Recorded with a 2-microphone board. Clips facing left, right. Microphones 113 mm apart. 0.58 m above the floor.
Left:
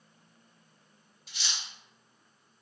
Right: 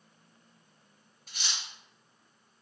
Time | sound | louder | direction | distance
1.3 | cutlery clinking | right 1 dB | 45° right (ahead or behind) | 0.6 m